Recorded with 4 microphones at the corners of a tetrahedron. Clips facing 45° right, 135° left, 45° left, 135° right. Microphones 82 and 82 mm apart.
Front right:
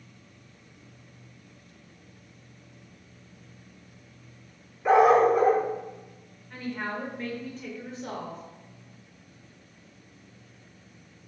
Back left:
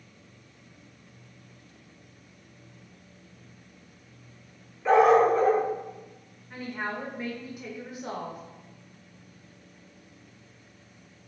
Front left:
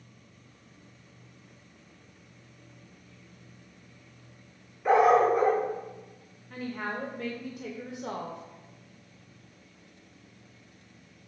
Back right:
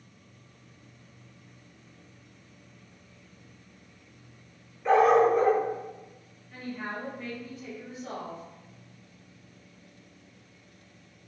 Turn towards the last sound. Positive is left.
turn(degrees=55)